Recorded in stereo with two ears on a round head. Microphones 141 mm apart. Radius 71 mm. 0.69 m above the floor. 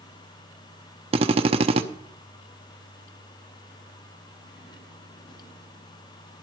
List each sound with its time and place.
1.1 s a drill: 35° right (ahead or behind), 0.9 m